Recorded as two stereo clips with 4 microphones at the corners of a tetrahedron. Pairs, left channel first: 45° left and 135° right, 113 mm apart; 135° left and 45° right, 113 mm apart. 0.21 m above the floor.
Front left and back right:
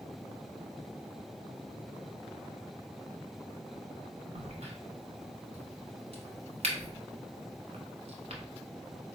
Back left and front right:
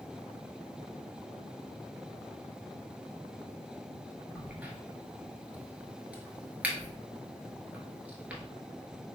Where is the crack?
120° right, 0.9 m.